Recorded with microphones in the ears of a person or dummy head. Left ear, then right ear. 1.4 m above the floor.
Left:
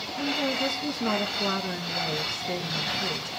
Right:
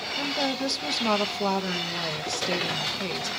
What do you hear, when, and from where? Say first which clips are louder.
0.2 s a woman speaking: left 1 dB; 80° right, 1.7 m